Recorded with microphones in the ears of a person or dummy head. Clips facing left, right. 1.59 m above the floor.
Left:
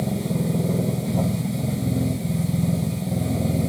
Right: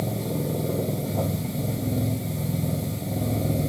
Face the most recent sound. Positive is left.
turn(degrees=5)  # may be behind; listen again after turning